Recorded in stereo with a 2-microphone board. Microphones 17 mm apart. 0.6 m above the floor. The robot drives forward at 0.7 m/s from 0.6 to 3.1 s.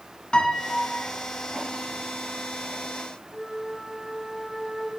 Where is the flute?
30° right (ahead or behind), 2 m.